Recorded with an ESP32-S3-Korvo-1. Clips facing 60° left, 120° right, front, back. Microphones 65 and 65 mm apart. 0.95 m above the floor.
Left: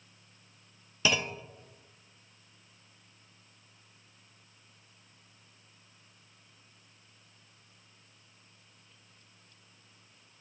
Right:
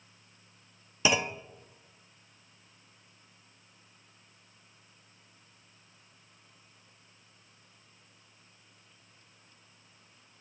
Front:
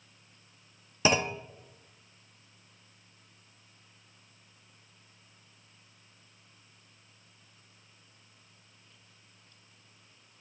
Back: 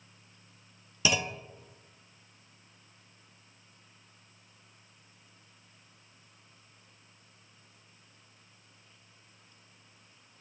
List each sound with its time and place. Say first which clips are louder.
1.1 s a clunk: right 2 dB, front 4 dB; 50° right, 0.7 m